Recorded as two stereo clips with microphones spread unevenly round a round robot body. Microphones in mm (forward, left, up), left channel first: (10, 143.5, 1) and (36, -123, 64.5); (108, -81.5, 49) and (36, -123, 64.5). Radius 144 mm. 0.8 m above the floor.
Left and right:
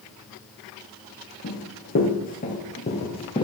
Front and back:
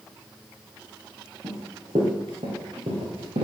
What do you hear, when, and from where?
1.4 s running footsteps: 155° left, 3.5 m; by 3.5 s 175° left, 2.5 m